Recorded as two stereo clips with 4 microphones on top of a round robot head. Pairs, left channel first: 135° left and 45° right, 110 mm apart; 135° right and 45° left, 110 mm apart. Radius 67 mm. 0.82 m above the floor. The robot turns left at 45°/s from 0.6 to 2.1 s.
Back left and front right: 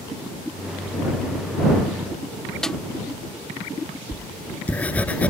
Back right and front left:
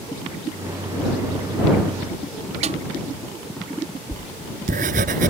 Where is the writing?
55° left.